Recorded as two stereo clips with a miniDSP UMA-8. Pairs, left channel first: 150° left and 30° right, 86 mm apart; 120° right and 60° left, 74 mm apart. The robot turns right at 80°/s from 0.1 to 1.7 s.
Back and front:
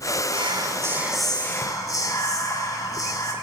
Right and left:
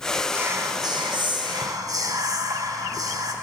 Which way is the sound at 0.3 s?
10° right.